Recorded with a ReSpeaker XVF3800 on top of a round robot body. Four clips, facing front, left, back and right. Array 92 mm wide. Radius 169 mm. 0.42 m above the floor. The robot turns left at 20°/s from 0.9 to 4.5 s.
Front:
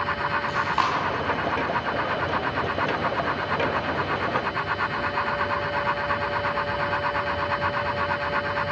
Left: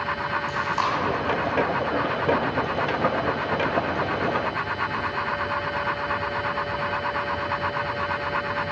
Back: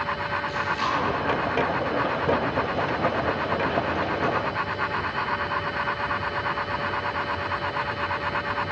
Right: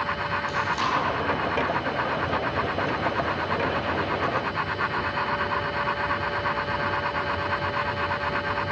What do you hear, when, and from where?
0.5 s chewing: 30° left, 4.5 m